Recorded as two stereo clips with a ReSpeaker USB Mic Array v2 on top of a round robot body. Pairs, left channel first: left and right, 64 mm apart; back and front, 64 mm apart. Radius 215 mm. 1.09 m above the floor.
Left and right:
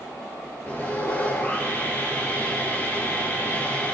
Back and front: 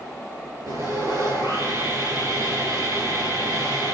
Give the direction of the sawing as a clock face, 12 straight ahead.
11 o'clock.